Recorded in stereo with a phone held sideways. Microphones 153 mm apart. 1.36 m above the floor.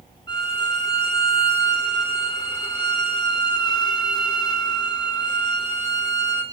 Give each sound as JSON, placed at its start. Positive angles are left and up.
{"t": 0.3, "sound": "a violin", "side_deg": 30, "distance_m": 2.5}